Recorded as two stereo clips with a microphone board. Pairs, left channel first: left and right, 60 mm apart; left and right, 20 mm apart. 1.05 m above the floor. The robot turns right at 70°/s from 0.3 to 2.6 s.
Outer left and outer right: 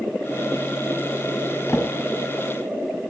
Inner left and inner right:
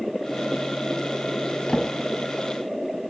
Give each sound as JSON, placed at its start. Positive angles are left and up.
{"t": 1.7, "sound": "a drawer", "side_deg": 50, "distance_m": 2.5}